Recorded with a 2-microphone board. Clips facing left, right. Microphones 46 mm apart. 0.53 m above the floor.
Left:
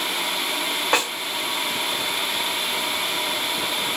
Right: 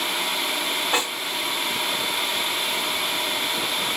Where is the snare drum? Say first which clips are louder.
Left 4 dB; 55° left (ahead or behind), 2.5 m.